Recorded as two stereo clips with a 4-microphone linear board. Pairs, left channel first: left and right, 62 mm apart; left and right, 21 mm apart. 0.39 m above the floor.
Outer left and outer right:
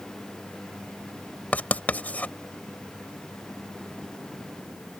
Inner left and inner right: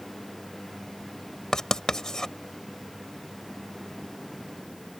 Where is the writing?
25° left (ahead or behind).